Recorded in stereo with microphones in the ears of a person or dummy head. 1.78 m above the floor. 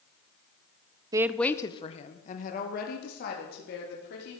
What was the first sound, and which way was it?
A woman speaking, 25° right (ahead or behind).